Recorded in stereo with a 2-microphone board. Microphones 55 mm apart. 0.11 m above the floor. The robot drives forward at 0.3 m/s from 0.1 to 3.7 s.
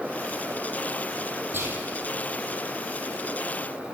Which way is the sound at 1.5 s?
40° right (ahead or behind).